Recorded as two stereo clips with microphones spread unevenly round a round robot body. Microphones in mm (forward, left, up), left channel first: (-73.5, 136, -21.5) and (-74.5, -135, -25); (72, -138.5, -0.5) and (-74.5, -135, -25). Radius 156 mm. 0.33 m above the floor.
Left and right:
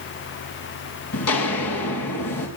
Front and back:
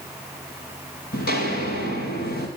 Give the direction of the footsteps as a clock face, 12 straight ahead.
11 o'clock.